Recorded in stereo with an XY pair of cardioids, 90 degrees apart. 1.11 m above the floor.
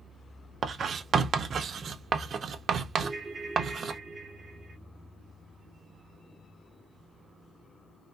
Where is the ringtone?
35° right, 1.0 m.